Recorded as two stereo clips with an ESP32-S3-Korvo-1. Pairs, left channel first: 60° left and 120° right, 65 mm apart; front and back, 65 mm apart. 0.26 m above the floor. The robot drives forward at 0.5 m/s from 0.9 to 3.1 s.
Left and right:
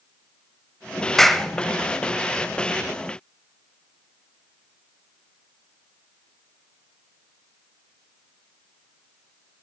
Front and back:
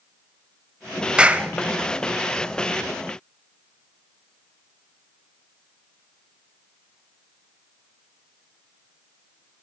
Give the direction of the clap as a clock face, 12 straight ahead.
7 o'clock.